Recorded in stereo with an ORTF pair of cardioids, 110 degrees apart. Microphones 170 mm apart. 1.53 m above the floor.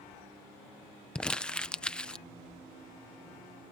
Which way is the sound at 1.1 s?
5° left.